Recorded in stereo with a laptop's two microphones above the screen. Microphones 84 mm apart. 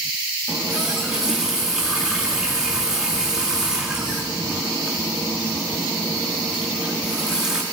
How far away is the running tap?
About 1.5 m.